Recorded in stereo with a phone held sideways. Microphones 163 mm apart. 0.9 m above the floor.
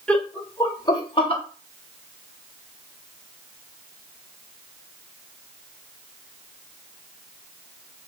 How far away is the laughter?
About 0.9 m.